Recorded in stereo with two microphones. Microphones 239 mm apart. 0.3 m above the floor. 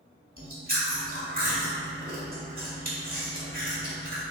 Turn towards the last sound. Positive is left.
turn(degrees=-40)  # may be behind; listen again after turning